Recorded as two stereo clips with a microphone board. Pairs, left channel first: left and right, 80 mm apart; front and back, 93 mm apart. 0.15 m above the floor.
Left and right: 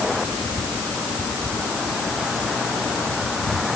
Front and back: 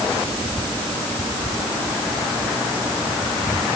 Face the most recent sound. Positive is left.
No sound to turn to.